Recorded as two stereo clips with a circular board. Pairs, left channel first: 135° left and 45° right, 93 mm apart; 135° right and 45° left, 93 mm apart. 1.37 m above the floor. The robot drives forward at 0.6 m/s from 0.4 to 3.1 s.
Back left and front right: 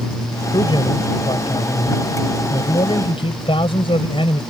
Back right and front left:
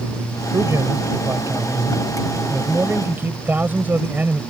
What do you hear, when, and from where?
0.5 s a man speaking: 100° left; by 4.4 s 115° left